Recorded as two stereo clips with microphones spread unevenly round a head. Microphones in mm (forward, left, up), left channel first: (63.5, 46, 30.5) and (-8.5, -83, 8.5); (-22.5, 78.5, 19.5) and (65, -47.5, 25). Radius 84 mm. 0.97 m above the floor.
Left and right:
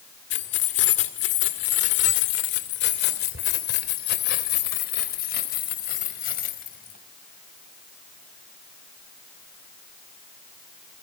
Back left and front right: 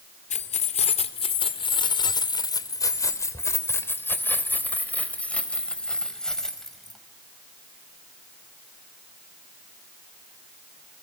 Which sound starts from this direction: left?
Keys jangling, at 0.3 s.